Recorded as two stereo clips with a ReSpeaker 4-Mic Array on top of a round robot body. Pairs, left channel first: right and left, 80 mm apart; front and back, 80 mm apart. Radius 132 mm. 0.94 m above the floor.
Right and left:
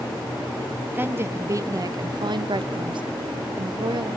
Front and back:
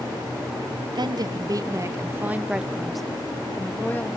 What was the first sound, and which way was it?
A woman speaking, 155° left.